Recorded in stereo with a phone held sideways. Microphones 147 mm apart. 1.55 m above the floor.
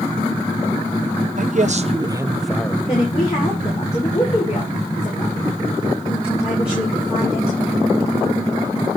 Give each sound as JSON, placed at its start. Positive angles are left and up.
{"t": 1.4, "sound": "a man speaking", "side_deg": -60, "distance_m": 0.8}
{"t": 2.9, "sound": "a woman speaking", "side_deg": 40, "distance_m": 2.5}